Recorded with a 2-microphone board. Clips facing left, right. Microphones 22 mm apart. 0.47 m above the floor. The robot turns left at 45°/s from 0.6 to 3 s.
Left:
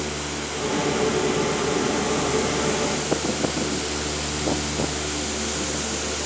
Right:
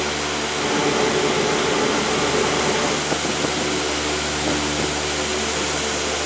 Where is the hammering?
No hammering in this recording.